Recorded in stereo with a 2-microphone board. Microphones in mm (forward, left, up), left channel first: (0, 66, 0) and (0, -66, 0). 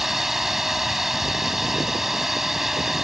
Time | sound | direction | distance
0.0 | a drone | centre (ahead or behind) | ?